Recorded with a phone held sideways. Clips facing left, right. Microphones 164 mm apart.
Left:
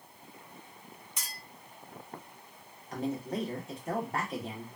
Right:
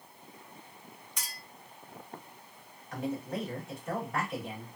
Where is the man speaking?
35° left (ahead or behind), 1.3 m.